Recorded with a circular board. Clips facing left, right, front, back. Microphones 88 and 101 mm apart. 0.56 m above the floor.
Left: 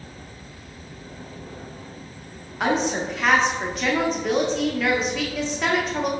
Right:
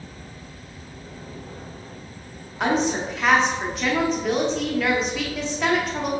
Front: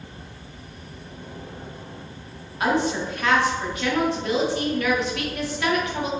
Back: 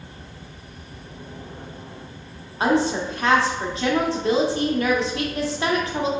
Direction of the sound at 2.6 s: Straight behind.